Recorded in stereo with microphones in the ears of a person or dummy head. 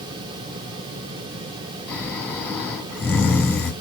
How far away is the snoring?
About 1.7 m.